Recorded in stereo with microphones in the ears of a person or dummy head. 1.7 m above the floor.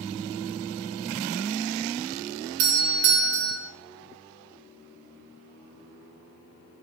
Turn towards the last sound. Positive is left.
turn(degrees=-55)  # may be behind; listen again after turning